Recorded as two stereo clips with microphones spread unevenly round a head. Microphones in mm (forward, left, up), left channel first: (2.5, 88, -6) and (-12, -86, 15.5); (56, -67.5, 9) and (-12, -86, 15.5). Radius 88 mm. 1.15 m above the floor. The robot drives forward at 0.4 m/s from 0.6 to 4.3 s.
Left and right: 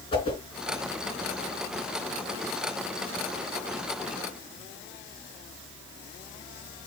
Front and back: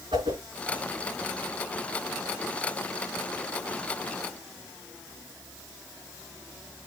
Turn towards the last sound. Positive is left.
turn(degrees=160)